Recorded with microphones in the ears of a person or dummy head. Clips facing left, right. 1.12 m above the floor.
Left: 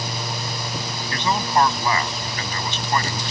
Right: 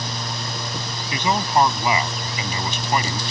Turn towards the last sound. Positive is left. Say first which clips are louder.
# right 1 dB
turn(degrees=-15)  # may be behind; listen again after turning